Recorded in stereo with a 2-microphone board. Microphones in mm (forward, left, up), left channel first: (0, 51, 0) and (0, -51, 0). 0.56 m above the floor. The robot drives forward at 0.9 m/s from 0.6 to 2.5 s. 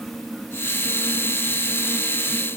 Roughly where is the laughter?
I don't hear laughter.